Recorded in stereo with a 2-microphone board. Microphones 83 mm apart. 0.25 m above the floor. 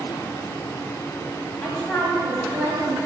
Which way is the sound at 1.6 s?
10° left (ahead or behind).